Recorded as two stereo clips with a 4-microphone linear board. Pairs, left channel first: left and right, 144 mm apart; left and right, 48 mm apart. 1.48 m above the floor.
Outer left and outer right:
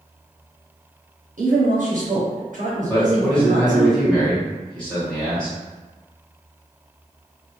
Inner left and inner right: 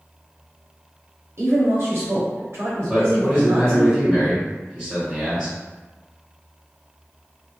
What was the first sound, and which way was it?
A woman speaking, 65° right (ahead or behind).